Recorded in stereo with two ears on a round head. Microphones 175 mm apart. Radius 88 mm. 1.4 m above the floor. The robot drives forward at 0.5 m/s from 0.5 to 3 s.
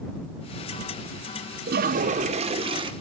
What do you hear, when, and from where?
1.7 s a toilet flushing: 55° right (ahead or behind), 0.6 m; by 2.9 s 25° right (ahead or behind), 1.1 m